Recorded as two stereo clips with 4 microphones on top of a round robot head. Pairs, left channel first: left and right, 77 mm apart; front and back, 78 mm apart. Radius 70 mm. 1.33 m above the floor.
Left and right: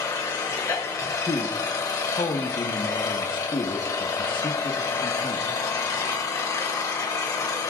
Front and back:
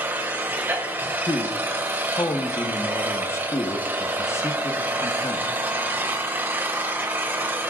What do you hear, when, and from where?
0.0 s an engine running: 125° left, 1.5 m
1.3 s a man speaking: 55° left, 1.3 m